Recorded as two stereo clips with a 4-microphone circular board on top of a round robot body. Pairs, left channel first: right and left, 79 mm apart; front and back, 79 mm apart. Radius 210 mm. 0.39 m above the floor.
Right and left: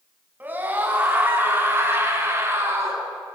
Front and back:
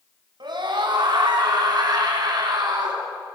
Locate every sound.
0.4 s a scream: 155° left, 5.5 m; by 3.0 s 145° left, 6 m